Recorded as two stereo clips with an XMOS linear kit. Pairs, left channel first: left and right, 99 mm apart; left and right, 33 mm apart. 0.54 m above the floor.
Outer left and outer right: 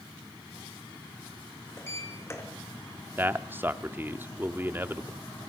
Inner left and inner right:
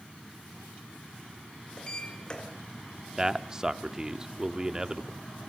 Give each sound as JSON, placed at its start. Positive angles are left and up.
{"t": 1.8, "sound": "a sliding door", "side_deg": 25, "distance_m": 3.5}
{"t": 3.2, "sound": "a man speaking", "side_deg": -20, "distance_m": 1.2}